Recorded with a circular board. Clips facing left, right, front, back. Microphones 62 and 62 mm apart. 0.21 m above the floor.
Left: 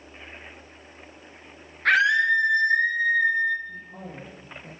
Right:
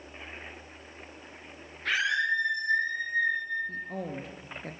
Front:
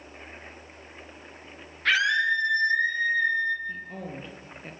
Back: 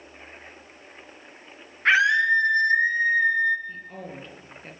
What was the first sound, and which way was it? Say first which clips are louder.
A scream: left 8 dB, back 4 dB; 120° left.